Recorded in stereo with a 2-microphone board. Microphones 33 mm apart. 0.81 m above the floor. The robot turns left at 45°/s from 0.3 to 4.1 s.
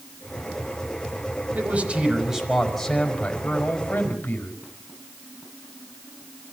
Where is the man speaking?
130° right, 5 m; by 4.5 s 115° left, 5 m.